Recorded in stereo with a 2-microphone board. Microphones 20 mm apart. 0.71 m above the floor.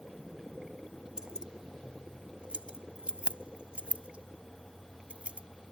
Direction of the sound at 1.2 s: 40° right (ahead or behind).